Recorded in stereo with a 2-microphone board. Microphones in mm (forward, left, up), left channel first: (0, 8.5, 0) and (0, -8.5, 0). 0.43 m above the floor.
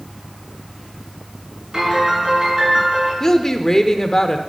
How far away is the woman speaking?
About 0.9 m.